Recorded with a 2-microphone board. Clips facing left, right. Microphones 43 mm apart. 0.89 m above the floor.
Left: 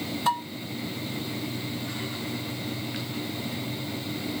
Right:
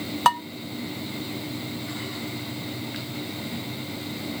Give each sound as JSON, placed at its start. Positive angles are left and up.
{"t": 0.2, "sound": "dishes clattering", "side_deg": -70, "distance_m": 1.0}